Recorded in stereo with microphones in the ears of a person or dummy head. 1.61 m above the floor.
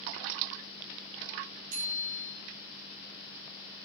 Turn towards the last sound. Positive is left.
turn(degrees=-45)  # may be behind; listen again after turning